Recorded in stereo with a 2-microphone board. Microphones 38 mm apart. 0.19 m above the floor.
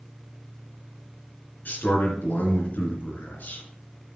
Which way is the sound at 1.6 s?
55° left (ahead or behind).